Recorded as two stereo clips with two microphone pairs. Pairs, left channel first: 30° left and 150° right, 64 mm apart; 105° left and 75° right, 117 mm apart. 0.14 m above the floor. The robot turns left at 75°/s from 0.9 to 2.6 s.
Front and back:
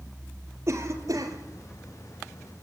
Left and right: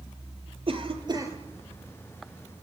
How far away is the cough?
About 4.5 m.